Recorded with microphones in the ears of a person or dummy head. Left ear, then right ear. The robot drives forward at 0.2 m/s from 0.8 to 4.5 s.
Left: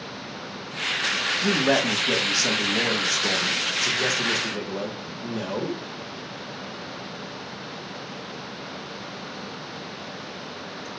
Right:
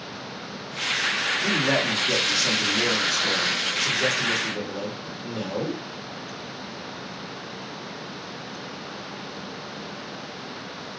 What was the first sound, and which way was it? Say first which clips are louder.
A man speaking: left 2 dB; 70° left (ahead or behind).